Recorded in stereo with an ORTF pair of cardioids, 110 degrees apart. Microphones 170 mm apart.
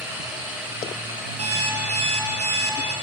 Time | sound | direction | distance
0.0 | a machine running | 15° right | 6 m
1.4 | an alarm clock | 40° right | 2.5 m